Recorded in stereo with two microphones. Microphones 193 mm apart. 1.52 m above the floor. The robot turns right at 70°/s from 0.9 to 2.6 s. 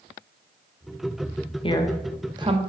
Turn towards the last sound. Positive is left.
turn(degrees=-40)  # may be behind; listen again after turning